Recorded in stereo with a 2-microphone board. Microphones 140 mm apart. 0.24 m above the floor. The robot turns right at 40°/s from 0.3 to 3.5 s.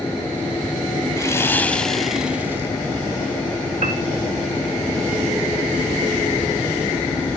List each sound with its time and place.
1.2 s sawing: 145° left, 0.5 m; by 2.7 s 155° right, 0.5 m
3.8 s a piano: 60° right (ahead or behind), 0.6 m